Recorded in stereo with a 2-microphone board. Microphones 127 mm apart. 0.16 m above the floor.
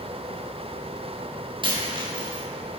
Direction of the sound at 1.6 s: 40° right (ahead or behind).